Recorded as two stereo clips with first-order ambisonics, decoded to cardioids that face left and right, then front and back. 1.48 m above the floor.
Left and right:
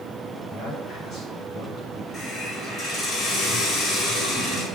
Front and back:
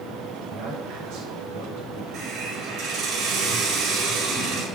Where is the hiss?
145° left, 4.5 m.